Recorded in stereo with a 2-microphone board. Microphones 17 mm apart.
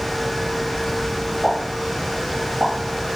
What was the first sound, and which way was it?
A pop, 20° right (ahead or behind).